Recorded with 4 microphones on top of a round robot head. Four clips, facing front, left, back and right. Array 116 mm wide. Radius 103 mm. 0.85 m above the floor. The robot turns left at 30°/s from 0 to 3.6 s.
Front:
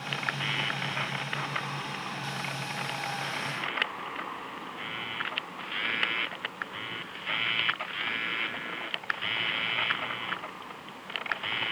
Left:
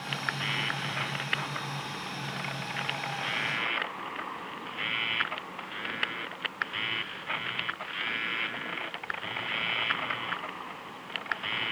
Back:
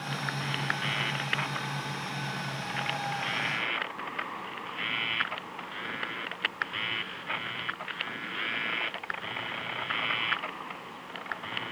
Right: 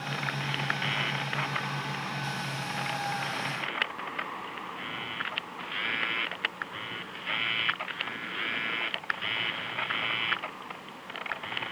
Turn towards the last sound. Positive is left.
No sound to turn to.